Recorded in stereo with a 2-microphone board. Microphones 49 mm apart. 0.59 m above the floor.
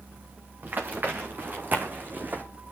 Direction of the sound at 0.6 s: 40° right (ahead or behind).